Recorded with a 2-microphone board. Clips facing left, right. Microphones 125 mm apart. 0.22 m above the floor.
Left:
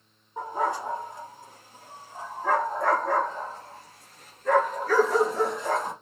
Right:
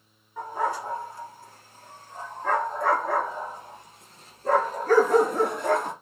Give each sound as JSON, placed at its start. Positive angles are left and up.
{"t": 0.4, "sound": "a dog barking", "side_deg": 25, "distance_m": 3.0}